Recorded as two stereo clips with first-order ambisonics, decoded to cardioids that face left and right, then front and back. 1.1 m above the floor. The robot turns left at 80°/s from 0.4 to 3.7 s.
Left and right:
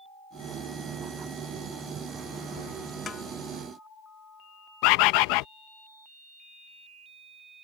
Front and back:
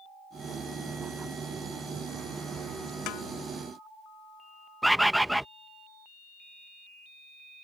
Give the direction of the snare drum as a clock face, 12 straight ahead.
11 o'clock.